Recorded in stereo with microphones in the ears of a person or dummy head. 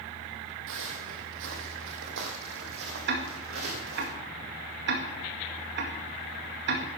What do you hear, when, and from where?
0.7 s footsteps: 70° right (ahead or behind), 3 m; by 4.1 s 60° right (ahead or behind), 5 m
3.1 s ticking: 55° right (ahead or behind), 2 m